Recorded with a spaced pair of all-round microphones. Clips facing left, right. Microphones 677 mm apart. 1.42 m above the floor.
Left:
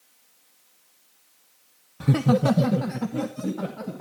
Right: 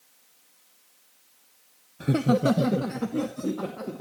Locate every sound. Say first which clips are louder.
2.0 s laughter: left 1 dB; 35° left (ahead or behind), 0.5 m; by 4.0 s 20° left (ahead or behind), 3 m